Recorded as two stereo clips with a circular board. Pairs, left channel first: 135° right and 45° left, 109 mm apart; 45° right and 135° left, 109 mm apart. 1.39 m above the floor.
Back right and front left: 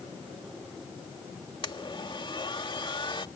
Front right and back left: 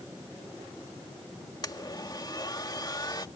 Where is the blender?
95° right.